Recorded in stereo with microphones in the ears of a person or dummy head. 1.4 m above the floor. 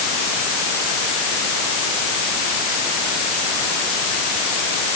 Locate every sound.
Only background noise.